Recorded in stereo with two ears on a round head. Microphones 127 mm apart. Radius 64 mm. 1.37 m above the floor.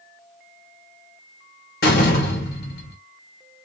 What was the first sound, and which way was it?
A door slam, 80° left.